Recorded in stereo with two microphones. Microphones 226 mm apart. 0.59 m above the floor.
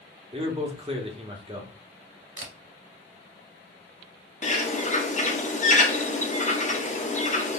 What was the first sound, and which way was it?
A man speaking, 25° right (ahead or behind).